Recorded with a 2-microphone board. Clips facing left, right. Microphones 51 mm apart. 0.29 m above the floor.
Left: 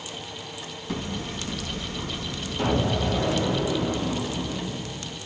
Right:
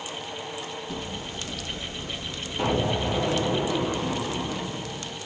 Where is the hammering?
55° left (ahead or behind), 2.5 m.